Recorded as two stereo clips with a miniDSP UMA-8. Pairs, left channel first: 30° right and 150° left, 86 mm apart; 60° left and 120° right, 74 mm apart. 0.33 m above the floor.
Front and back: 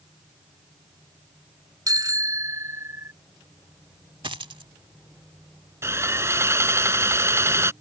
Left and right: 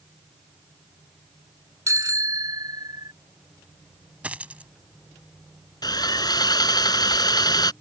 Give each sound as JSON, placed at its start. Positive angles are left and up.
{"t": 1.9, "sound": "a bicycle bell", "azimuth_deg": -165}
{"t": 4.2, "sound": "a dropped coin", "azimuth_deg": 170}
{"t": 5.8, "sound": "sawing", "azimuth_deg": 90}